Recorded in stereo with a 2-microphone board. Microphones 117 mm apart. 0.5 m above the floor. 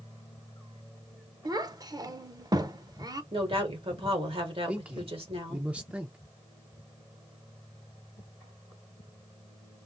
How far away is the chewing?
No chewing in this recording.